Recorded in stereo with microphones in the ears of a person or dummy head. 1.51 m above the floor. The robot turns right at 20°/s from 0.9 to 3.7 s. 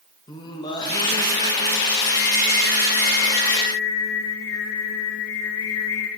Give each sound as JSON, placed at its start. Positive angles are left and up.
{"t": 0.3, "sound": "singing", "azimuth_deg": 25, "distance_m": 0.7}